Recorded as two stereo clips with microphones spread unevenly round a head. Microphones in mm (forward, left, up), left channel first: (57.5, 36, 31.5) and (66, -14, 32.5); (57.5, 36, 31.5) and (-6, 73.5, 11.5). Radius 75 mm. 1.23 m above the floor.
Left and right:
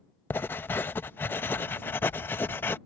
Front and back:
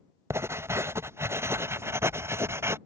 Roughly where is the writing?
Left.